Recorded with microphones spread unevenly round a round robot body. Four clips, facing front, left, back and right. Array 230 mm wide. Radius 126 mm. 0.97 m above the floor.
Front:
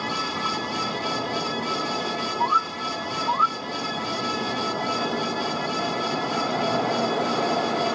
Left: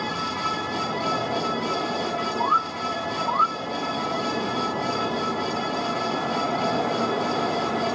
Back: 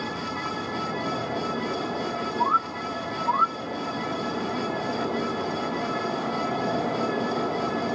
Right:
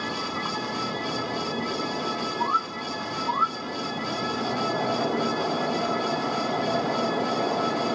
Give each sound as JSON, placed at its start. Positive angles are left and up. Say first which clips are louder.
{"t": 2.4, "sound": "a bird", "louder": "left 4 dB, front 1 dB", "azimuth_deg": 180, "distance_m": 1.2}